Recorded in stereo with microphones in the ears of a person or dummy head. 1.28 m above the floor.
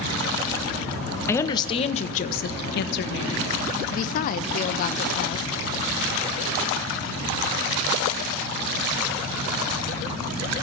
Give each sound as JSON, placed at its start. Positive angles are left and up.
{"t": 1.3, "sound": "a woman speaking", "side_deg": 15, "distance_m": 0.9}
{"t": 3.9, "sound": "a woman speaking", "side_deg": 45, "distance_m": 0.5}